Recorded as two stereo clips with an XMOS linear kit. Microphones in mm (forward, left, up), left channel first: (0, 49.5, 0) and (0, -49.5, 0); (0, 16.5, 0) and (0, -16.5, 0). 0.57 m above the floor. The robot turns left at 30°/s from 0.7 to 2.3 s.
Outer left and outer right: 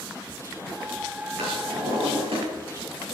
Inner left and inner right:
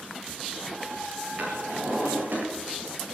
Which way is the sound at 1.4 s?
80° right.